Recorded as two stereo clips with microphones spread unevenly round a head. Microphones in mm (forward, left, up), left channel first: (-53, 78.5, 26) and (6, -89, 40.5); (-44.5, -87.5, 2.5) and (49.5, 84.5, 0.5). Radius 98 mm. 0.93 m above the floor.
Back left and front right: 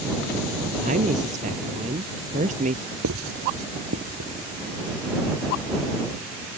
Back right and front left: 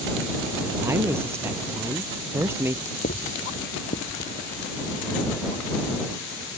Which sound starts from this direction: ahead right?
Writing, at 3.0 s.